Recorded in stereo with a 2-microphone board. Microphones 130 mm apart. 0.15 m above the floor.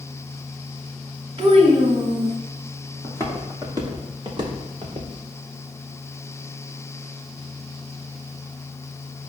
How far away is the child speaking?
About 1.4 m.